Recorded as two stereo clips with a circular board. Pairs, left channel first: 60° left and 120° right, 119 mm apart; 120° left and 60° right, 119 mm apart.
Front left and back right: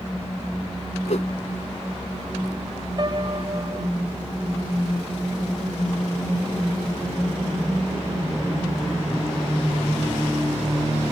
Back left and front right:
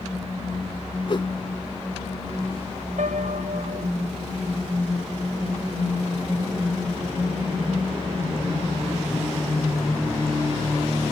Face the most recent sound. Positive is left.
turn(degrees=-65)